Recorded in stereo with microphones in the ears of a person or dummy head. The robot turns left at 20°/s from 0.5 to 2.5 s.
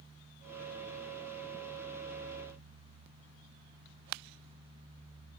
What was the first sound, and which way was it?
Only background noise.